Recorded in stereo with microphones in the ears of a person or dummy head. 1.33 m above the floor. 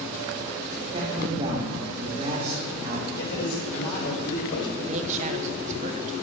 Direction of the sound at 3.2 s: 65° left (ahead or behind).